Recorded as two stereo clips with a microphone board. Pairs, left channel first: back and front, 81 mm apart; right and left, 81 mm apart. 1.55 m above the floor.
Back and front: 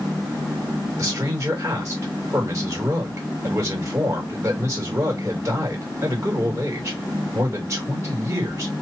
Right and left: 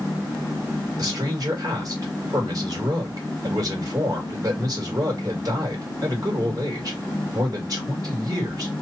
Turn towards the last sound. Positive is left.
turn(degrees=50)